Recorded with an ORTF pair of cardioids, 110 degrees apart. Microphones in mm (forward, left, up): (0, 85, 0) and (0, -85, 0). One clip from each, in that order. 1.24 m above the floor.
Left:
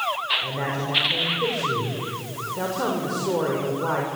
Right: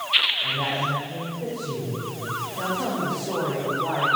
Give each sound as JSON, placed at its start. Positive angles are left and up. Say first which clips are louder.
{"t": 0.4, "sound": "a man speaking", "louder": "right 3 dB", "azimuth_deg": 45, "distance_m": 5.5}